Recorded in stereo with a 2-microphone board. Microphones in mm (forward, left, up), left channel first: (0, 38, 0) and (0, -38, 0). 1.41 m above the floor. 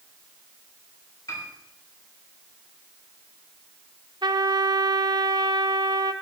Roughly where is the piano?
Left.